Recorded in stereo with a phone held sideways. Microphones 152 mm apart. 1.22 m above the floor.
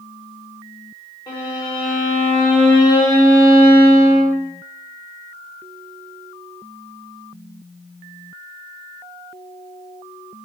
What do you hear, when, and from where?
1.3 s a violin: 30° left (ahead or behind), 0.9 m